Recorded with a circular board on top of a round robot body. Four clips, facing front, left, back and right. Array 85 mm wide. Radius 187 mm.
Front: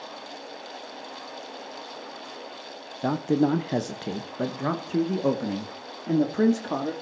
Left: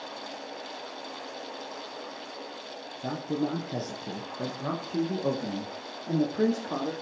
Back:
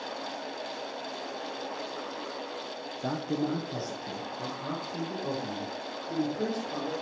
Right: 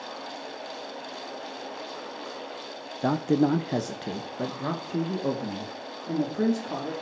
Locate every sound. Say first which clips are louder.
3.0 s a man speaking: right 8 dB, front 8 dB; 55° right, 1.1 m; by 6.9 s 5° left, 2.5 m